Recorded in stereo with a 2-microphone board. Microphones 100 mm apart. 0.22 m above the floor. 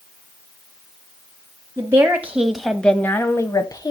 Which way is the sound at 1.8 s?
30° right (ahead or behind).